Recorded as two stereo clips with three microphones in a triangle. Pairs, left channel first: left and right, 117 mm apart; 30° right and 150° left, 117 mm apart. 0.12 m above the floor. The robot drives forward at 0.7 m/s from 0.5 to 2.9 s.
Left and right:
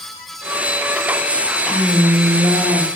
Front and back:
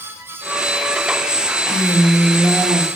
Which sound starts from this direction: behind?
A woman speaking, at 1.7 s.